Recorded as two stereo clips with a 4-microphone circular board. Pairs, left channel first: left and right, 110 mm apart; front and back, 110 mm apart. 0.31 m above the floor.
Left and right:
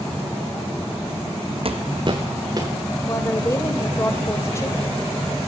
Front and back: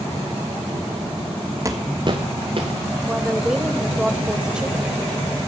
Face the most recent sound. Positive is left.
turn(degrees=110)